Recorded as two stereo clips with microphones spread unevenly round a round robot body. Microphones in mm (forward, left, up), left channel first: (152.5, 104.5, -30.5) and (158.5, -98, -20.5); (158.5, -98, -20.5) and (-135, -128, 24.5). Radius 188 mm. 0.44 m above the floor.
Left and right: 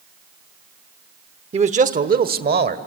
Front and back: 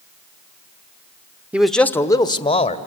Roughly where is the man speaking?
Right.